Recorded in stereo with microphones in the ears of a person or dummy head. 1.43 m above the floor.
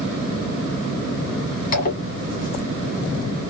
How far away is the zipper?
About 1.4 m.